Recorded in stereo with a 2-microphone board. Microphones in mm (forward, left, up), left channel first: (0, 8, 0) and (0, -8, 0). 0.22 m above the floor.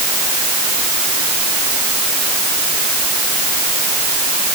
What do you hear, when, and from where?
Only background noise.